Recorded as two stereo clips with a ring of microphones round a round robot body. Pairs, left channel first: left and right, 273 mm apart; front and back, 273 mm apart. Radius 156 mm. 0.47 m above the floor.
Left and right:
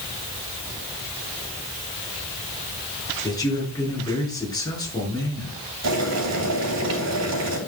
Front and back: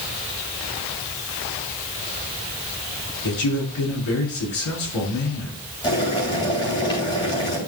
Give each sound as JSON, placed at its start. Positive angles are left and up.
{"t": 3.2, "sound": "a man speaking", "azimuth_deg": 15, "distance_m": 5.5}
{"t": 5.8, "sound": "boiling", "azimuth_deg": -75, "distance_m": 4.0}